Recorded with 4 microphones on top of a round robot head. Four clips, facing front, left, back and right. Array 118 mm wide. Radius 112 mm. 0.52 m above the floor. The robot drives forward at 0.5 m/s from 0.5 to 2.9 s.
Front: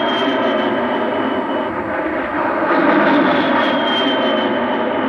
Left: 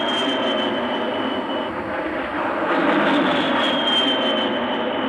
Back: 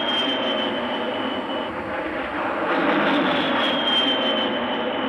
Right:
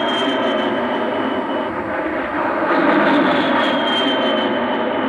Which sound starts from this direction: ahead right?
An aircraft, at 0.0 s.